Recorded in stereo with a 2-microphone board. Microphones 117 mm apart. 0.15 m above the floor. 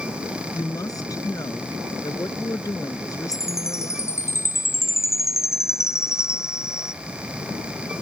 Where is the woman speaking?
30° left (ahead or behind).